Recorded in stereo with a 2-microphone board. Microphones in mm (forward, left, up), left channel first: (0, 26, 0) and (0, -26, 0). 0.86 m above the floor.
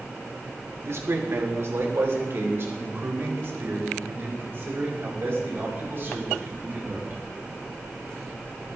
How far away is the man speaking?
About 2 m.